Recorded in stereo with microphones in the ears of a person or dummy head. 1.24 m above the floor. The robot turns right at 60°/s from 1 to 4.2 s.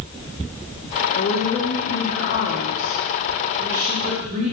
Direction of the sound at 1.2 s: 50° left.